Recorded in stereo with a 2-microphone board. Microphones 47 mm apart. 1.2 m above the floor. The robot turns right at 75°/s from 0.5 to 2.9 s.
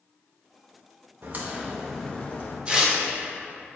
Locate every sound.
1.2 s a crack: 50° right, 0.8 m; by 2.6 s 50° left, 0.8 m
2.7 s tearing paper: 25° right (ahead or behind), 1.1 m; by 3.0 s 10° right (ahead or behind), 1.1 m